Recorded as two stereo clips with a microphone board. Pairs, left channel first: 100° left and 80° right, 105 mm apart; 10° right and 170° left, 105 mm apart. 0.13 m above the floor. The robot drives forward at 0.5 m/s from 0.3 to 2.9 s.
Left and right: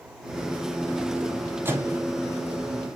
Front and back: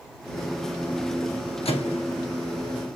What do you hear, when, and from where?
1.6 s a microwave: 15° right, 2 m